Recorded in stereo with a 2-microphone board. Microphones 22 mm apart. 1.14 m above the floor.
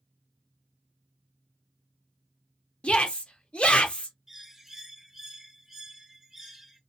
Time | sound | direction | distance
2.8 | a shout | 60° left (ahead or behind) | 0.9 m
4.3 | a bird | 15° right (ahead or behind) | 0.8 m